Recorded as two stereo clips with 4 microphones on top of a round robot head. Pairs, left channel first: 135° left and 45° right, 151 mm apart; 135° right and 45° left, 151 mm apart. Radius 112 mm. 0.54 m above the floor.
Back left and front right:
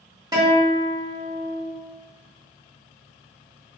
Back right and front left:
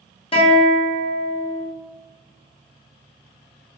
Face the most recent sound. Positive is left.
turn(degrees=-100)